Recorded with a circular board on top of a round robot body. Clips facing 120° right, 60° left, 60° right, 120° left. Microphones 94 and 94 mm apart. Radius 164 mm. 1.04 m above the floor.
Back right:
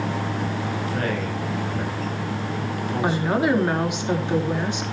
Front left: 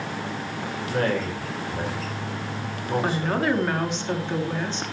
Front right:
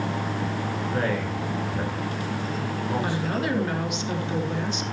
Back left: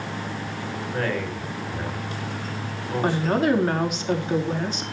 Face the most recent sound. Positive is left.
turn(degrees=165)